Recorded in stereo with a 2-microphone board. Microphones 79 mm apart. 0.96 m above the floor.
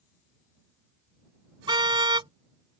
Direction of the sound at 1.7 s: 85° right.